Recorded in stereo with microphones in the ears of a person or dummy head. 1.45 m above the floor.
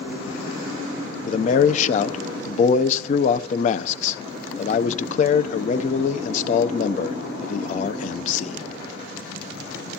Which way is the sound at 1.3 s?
45° left (ahead or behind).